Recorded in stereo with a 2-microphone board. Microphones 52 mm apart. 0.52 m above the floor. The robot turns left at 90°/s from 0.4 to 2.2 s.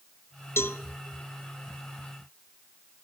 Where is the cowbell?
50° left (ahead or behind), 0.5 m; by 0.8 s 40° left (ahead or behind), 0.5 m.